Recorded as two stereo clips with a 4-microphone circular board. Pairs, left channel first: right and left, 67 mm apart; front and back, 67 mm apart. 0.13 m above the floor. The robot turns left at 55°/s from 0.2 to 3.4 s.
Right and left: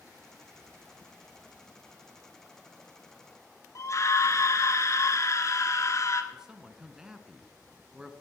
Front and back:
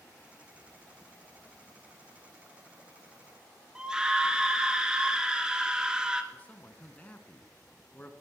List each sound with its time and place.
3.8 s a scream: 105° right, 2 m
6.3 s a man speaking: 20° left, 1.6 m